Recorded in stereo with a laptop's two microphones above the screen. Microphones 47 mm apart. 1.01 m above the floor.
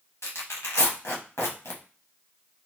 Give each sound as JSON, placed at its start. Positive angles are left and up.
{"t": 0.2, "sound": "tearing paper", "side_deg": 75, "distance_m": 1.1}